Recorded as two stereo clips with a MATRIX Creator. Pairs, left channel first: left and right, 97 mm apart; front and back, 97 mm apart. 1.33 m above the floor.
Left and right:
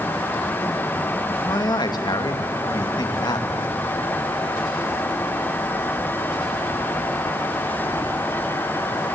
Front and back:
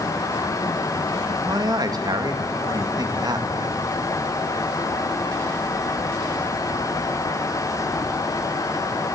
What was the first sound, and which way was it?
A man speaking, 135° left.